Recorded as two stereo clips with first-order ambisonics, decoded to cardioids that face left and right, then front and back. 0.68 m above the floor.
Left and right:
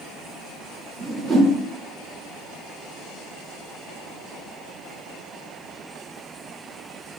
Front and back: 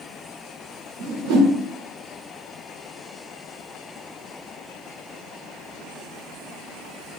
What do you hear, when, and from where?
1.0 s a whoosh: 165° right, 0.7 m